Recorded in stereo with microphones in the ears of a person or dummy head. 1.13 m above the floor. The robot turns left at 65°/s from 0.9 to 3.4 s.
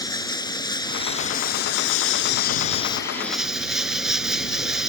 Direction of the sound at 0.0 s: 160° left.